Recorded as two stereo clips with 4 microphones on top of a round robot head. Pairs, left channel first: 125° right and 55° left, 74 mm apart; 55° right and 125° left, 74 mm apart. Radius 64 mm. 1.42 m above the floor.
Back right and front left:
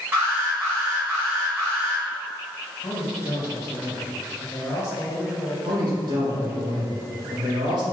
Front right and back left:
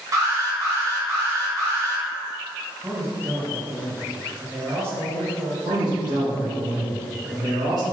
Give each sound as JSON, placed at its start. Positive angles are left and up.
{"t": 0.1, "sound": "an alarm", "azimuth_deg": 105, "distance_m": 1.5}
{"t": 2.8, "sound": "a man speaking", "azimuth_deg": -175, "distance_m": 1.3}
{"t": 5.7, "sound": "a man speaking", "azimuth_deg": 90, "distance_m": 1.7}